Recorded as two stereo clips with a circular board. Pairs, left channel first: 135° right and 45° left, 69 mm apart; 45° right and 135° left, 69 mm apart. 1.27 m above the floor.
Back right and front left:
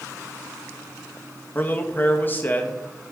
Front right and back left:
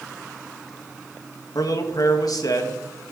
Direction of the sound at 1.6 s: 75° right.